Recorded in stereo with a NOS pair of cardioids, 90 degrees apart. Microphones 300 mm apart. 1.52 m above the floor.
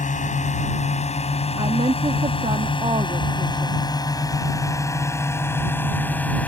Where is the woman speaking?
15° right.